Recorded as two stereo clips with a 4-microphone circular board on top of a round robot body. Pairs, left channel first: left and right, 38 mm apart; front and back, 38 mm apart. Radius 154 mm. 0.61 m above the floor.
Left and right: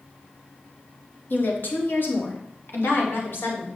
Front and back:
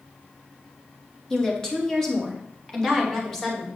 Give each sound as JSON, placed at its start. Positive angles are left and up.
{"t": 1.3, "sound": "a woman speaking", "azimuth_deg": 75, "distance_m": 2.0}